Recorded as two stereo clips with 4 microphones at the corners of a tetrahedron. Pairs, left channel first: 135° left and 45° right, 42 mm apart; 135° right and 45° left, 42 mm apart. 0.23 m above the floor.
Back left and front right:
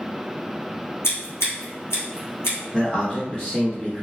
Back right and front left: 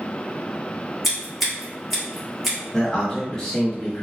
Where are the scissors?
140° left, 1.8 m.